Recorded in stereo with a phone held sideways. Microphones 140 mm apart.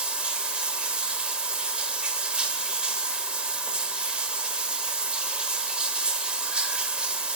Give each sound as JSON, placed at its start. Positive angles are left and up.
{"t": 0.0, "sound": "running water", "side_deg": -5, "distance_m": 1.0}